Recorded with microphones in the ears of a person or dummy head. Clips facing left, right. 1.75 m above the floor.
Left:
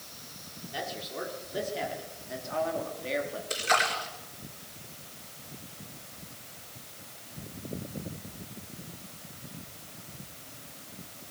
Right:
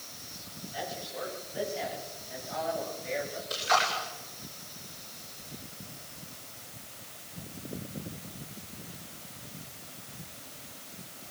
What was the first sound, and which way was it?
A man speaking, 60° left (ahead or behind).